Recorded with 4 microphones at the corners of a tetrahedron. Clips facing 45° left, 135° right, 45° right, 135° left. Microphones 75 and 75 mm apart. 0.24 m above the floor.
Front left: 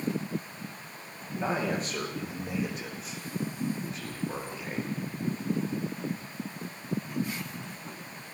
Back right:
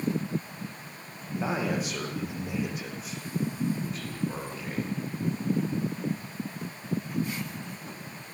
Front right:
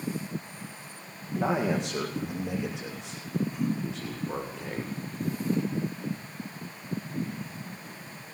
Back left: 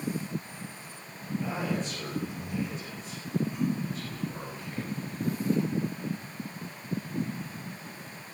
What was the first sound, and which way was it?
A man speaking, 55° right.